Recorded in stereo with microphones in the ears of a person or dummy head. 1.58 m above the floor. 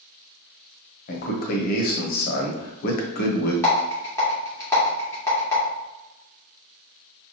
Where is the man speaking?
50° left (ahead or behind), 1.0 m.